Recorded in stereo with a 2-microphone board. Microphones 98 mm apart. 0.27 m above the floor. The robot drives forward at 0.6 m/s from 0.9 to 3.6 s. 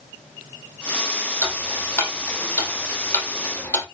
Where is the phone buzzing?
I don't hear a phone buzzing.